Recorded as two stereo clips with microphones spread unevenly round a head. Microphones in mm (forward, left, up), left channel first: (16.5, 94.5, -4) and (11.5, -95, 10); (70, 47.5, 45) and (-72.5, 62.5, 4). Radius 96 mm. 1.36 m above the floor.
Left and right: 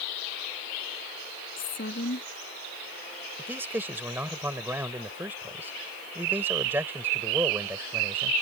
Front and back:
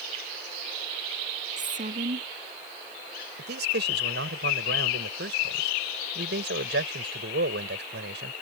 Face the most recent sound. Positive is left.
turn(degrees=-170)